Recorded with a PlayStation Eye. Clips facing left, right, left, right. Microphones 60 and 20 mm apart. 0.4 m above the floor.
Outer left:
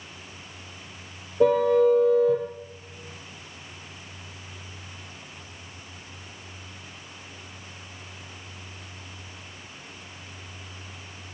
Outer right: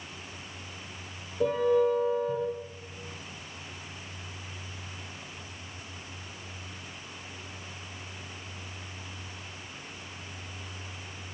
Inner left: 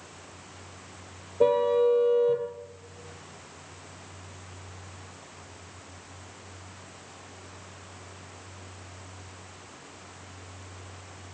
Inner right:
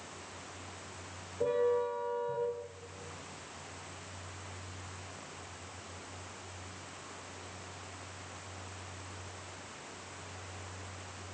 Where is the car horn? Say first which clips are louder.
Outer left 6 dB, inner left 9 dB; 75° left (ahead or behind), 4.5 m.